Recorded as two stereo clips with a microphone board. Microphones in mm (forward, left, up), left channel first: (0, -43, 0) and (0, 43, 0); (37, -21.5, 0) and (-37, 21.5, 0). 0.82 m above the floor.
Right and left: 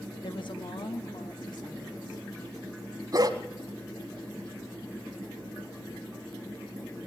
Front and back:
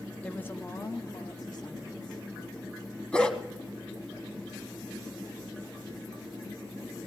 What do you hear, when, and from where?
0.2 s a woman speaking: 105° right, 0.9 m; by 2.2 s 55° right, 2.5 m
3.1 s a dog barking: 45° left, 1.7 m